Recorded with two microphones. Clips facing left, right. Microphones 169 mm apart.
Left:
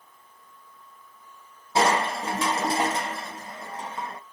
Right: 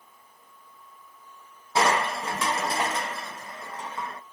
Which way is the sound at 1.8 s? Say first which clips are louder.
Left 1 dB; 30° left (ahead or behind).